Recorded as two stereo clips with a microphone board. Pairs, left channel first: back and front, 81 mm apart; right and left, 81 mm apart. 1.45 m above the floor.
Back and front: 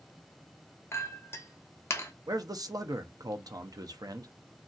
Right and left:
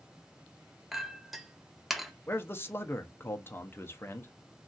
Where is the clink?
175° left, 0.5 m.